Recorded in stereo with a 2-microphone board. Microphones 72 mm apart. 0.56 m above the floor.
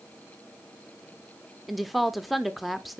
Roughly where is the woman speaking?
Centre.